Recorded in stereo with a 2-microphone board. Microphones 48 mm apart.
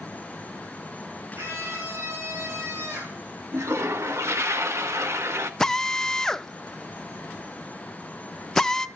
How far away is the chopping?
I don't hear chopping.